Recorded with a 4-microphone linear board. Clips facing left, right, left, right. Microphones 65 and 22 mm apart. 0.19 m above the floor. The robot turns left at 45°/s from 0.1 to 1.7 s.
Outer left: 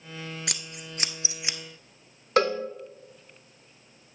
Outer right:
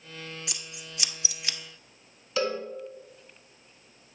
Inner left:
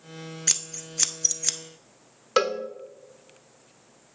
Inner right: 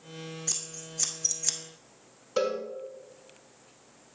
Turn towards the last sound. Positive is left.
turn(degrees=55)  # may be behind; listen again after turning